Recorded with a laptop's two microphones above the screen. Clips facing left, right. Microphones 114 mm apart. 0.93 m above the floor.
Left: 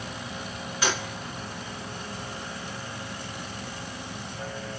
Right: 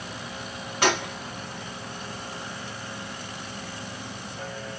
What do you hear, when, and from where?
0.8 s a gunshot: 60° right (ahead or behind), 1.2 m